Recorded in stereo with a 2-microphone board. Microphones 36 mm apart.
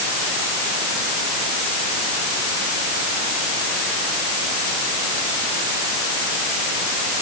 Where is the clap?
I don't hear a clap.